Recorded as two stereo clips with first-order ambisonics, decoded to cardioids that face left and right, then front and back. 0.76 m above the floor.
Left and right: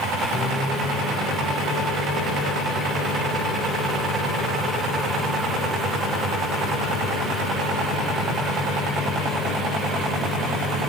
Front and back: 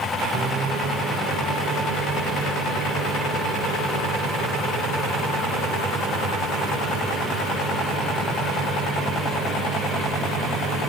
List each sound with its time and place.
0.3 s a microwave: 130° left, 2.5 m